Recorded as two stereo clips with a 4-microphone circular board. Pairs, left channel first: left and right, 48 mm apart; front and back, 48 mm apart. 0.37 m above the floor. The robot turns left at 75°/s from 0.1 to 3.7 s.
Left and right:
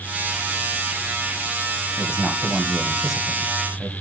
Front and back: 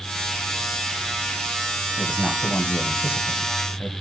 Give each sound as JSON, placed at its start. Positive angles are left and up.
{"t": 2.0, "sound": "a man speaking", "azimuth_deg": 85, "distance_m": 2.0}